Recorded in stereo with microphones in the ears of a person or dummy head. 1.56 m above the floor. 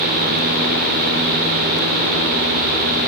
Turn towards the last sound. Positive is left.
No sound to turn to.